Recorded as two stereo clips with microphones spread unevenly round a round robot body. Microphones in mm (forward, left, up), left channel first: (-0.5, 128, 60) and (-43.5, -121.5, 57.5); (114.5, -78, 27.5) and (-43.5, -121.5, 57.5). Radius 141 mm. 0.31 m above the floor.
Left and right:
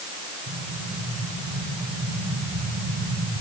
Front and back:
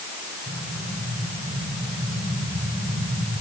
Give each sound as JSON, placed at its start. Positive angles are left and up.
{"t": 0.5, "sound": "an explosion", "azimuth_deg": -110, "distance_m": 7.0}